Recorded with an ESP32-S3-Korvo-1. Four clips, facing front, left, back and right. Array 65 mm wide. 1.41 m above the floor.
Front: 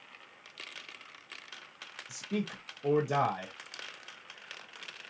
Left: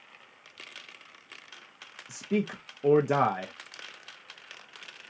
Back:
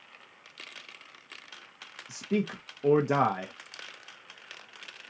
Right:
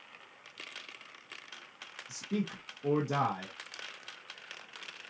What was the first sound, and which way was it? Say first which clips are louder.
A man speaking: left 6 dB, back 6 dB; 135° left.